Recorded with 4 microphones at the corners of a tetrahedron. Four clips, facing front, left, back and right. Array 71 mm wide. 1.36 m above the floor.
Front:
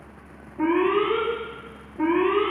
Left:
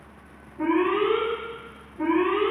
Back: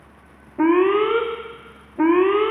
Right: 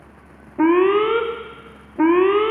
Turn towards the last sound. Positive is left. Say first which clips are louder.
# right 7 dB, back 5 dB
turn(degrees=-120)